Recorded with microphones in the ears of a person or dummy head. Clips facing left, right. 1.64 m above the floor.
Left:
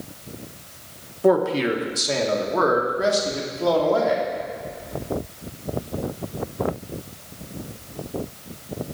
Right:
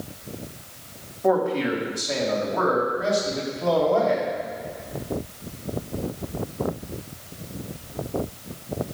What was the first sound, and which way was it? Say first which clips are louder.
A man speaking: left 3 dB; 50° left (ahead or behind).